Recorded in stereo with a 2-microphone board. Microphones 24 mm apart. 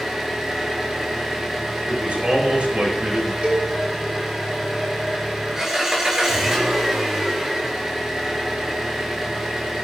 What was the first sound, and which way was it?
An engine running, 20° right (ahead or behind).